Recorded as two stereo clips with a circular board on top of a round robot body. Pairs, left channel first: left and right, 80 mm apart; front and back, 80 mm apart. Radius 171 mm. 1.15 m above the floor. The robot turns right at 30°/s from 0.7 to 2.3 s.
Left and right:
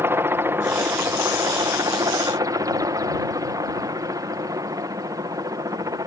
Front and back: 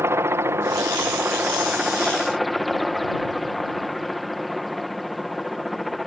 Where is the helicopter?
135° right; by 6.1 s 90° right.